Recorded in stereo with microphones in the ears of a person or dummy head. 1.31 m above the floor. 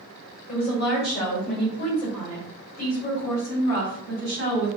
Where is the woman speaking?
50° left (ahead or behind), 1.7 m; by 4.7 s 45° left (ahead or behind), 4.5 m.